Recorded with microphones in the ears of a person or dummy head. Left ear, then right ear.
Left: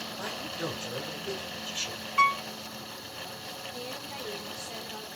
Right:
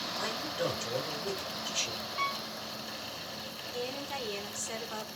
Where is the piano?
35° left (ahead or behind), 0.6 m.